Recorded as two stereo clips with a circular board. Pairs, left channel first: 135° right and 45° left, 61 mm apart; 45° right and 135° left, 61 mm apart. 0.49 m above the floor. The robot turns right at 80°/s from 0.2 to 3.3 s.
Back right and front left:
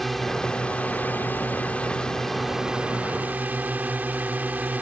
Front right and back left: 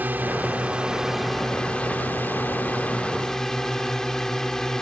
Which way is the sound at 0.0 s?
140° left.